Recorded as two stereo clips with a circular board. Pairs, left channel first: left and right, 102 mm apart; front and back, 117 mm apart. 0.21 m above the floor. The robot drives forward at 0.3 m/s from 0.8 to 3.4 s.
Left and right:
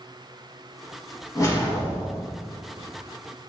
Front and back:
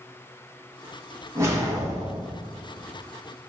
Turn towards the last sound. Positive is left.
turn(degrees=160)